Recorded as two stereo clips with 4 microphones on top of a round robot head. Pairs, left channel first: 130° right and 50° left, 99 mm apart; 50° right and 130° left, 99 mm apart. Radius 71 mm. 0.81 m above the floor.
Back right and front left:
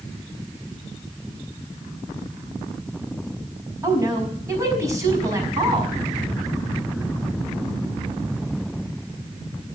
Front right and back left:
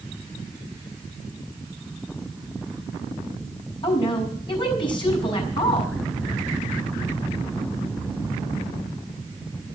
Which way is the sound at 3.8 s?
10° right.